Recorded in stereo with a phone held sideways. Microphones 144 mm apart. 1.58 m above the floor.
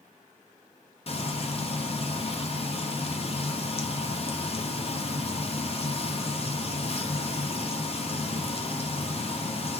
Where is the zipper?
No zipper in this recording.